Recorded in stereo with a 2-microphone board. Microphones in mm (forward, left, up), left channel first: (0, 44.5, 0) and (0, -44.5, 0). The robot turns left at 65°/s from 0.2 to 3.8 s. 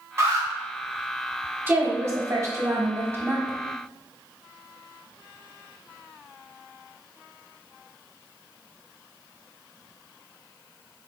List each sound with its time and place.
0.2 s an alarm: 30° right (ahead or behind), 0.9 m; by 0.5 s 40° right (ahead or behind), 0.9 m
1.7 s a woman speaking: 40° right, 0.8 m; by 3.6 s 165° right, 0.8 m